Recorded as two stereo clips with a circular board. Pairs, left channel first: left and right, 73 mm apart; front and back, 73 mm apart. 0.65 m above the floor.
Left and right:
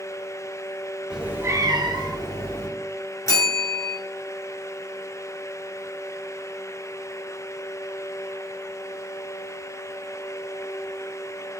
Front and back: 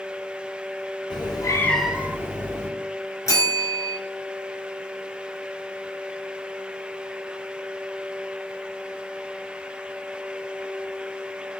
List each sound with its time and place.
1.1 s a cat meowing: 10° right, 0.8 m; by 2.7 s 130° right, 1.4 m
3.3 s a bell: 45° left, 1.2 m